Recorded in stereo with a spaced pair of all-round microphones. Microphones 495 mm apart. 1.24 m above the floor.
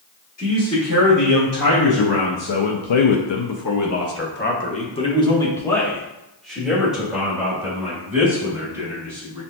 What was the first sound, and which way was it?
A man speaking, 30° left (ahead or behind).